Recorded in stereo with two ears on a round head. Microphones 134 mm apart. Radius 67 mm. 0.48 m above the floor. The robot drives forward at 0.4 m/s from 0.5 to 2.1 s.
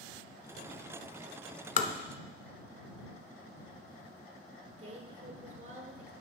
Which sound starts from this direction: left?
Tapping, at 1.8 s.